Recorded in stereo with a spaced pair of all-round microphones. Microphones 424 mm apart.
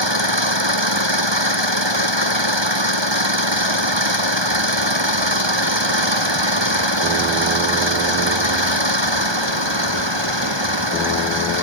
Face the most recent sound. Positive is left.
turn(degrees=-85)